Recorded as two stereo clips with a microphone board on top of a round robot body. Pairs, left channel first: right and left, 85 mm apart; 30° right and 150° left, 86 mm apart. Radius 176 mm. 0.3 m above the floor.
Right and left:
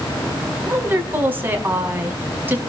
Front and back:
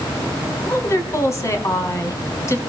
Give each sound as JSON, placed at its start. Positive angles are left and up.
{"t": 0.7, "sound": "a woman speaking", "azimuth_deg": 25, "distance_m": 5.0}